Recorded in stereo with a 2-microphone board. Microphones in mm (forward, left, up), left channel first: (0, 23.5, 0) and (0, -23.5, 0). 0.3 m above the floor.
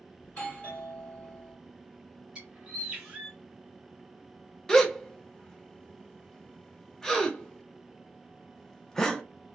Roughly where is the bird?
Centre.